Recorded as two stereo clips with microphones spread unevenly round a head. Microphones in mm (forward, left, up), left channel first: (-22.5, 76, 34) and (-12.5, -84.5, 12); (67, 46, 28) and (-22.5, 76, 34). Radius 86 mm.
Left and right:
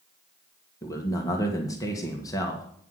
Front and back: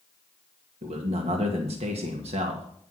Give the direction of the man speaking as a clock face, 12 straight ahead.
7 o'clock.